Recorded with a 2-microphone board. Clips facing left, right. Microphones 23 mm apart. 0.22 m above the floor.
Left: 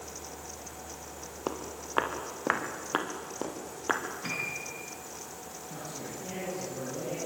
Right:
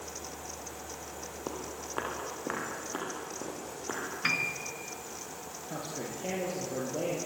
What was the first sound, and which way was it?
Footsteps, 35° left (ahead or behind).